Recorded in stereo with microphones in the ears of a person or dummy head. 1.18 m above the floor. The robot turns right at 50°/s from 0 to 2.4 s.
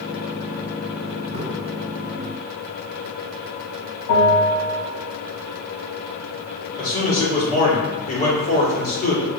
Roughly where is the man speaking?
Left.